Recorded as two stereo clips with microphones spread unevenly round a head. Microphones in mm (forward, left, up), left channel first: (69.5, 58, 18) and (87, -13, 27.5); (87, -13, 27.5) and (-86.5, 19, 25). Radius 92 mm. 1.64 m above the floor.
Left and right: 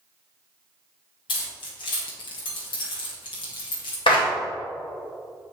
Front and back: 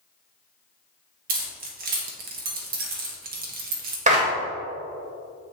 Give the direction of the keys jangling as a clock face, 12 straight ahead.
8 o'clock.